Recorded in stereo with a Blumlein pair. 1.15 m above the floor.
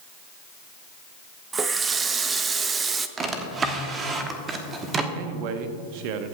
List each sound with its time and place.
1.5 s a running tap: 15° right, 0.7 m
3.2 s a drawer: 20° right, 1.3 m
5.2 s a man speaking: 45° right, 1.1 m